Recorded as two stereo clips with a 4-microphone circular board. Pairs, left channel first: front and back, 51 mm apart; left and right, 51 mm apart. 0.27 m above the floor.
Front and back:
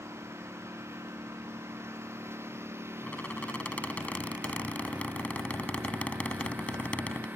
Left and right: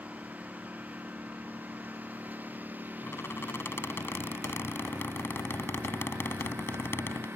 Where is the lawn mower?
150° right; by 7.4 s 130° right.